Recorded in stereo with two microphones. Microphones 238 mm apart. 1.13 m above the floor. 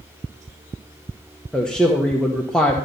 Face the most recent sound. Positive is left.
turn(degrees=5)  # may be behind; listen again after turning